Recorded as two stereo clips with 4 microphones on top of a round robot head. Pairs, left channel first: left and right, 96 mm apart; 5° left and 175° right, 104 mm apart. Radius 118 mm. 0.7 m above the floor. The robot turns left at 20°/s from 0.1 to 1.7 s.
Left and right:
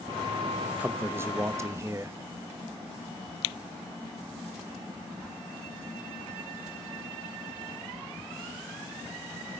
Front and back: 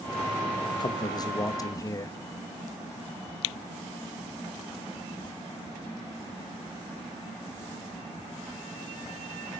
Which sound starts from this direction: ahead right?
A man speaking, at 0.8 s.